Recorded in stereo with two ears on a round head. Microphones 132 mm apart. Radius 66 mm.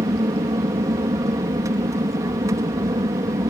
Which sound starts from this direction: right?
An aircraft, at 0.0 s.